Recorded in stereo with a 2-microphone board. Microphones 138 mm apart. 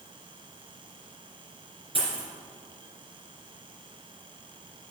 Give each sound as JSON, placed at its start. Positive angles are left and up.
{"t": 1.9, "sound": "a dropped coin", "side_deg": -40, "distance_m": 3.0}